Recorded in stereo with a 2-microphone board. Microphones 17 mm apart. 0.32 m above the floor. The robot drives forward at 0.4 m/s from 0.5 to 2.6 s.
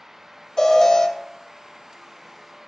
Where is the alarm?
40° left (ahead or behind), 1.1 m.